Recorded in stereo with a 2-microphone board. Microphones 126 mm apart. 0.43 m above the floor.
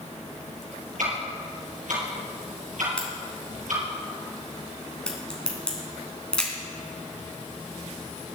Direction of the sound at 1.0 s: 80° right.